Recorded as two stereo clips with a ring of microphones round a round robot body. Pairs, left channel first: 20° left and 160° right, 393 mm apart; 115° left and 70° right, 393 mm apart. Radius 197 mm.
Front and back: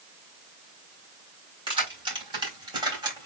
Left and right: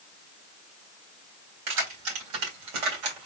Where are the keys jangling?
80° right, 3.5 m; by 3.3 s 75° right, 3 m.